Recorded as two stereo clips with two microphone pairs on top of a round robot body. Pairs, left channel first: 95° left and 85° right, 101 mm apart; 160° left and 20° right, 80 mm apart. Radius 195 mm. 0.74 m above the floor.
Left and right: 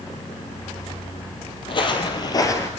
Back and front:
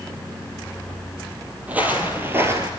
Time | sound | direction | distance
1.7 | footsteps | 55° left | 1.7 m